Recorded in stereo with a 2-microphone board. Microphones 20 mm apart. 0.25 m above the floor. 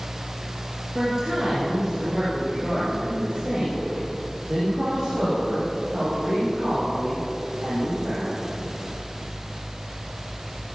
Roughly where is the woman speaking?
Right.